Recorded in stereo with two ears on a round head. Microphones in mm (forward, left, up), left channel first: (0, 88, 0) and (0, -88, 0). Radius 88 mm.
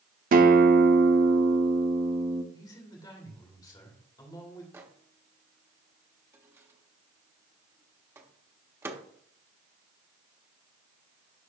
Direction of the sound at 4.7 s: 15° right (ahead or behind).